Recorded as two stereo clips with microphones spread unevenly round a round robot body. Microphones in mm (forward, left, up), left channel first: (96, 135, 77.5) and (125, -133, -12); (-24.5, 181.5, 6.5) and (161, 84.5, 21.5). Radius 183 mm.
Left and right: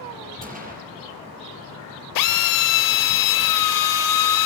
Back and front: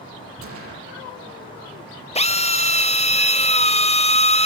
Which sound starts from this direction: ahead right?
A gunshot, at 0.4 s.